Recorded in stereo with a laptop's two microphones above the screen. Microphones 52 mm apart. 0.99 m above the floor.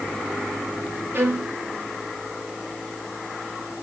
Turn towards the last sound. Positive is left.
turn(degrees=-50)  # may be behind; listen again after turning